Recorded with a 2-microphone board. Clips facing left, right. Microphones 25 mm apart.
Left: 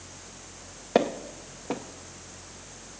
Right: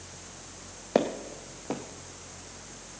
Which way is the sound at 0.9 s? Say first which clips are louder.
Left 2 dB; 5° left (ahead or behind).